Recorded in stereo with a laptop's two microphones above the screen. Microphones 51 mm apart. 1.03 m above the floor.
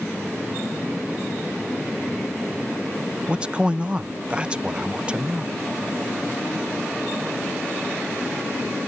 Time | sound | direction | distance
3.3 | a man speaking | 20° right (ahead or behind) | ?